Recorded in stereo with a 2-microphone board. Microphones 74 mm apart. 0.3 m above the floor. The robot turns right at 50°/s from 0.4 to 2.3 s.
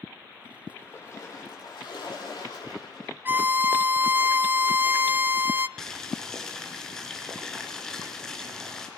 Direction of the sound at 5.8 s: 5° left (ahead or behind).